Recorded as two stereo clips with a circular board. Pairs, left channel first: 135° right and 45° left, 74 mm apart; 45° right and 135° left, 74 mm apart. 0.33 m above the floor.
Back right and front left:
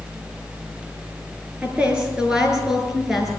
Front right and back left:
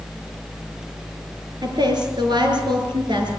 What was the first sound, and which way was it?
A woman speaking, 120° left.